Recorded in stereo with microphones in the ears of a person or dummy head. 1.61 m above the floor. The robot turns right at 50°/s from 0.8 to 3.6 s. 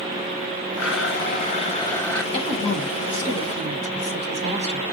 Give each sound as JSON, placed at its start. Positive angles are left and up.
{"t": 0.8, "sound": "a blender", "azimuth_deg": 105, "distance_m": 1.2}
{"t": 2.3, "sound": "a woman speaking", "azimuth_deg": 155, "distance_m": 1.5}